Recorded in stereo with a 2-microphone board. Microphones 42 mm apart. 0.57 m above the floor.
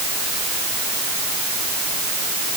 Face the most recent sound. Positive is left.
No sound to turn to.